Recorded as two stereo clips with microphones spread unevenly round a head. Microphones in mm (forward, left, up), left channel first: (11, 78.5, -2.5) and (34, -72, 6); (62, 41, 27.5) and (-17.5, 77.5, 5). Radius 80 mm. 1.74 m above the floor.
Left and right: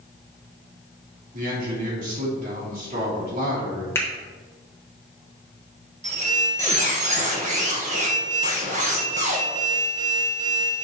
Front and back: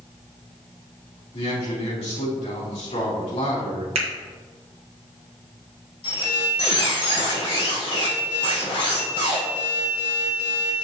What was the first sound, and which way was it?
A man speaking, 50° right.